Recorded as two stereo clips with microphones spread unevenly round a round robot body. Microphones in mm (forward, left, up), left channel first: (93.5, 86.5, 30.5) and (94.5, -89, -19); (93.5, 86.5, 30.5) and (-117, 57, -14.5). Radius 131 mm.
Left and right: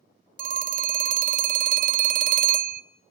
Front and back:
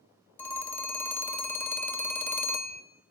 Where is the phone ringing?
80° right, 0.5 m.